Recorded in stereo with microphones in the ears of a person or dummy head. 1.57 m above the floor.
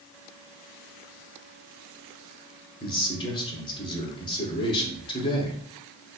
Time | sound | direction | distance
2.8 | a man speaking | 25° left (ahead or behind) | 1.0 m